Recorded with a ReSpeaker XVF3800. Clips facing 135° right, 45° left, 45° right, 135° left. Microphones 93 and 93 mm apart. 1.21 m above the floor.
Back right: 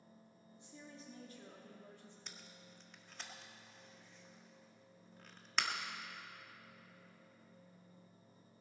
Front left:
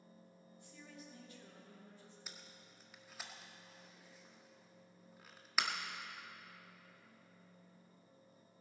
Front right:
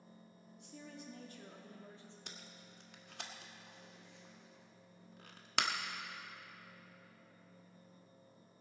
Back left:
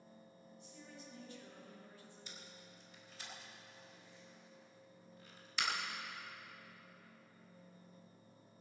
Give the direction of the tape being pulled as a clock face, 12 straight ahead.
1 o'clock.